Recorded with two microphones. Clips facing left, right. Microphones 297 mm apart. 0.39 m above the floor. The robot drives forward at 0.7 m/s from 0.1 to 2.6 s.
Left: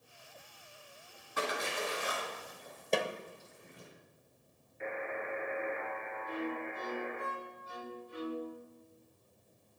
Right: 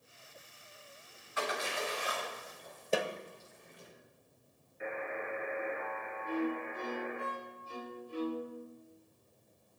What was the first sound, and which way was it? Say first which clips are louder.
A splash: left 1 dB; 50° left (ahead or behind).